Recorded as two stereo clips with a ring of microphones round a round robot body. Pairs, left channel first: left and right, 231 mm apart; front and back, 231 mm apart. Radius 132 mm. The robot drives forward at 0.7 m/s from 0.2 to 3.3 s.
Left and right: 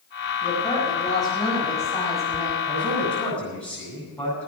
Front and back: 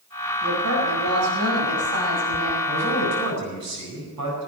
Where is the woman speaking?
165° left, 4.5 m; by 2.6 s 170° left, 6 m.